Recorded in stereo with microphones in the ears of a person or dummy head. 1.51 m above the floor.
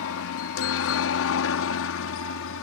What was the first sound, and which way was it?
A helicopter, 70° left (ahead or behind).